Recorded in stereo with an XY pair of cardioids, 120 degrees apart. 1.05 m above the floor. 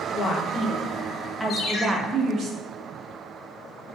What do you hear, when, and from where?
0.1 s a woman speaking: 45° left, 1.0 m; by 2.5 s 40° right, 0.8 m
1.5 s a ringtone: 55° left, 0.9 m